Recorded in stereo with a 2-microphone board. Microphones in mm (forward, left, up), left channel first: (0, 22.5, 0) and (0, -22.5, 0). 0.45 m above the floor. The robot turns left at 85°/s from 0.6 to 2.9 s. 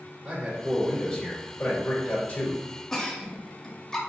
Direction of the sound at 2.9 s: 10° left (ahead or behind).